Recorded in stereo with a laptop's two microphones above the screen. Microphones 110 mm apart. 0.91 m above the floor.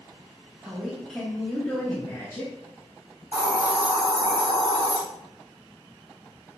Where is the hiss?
25° right (ahead or behind), 2 m.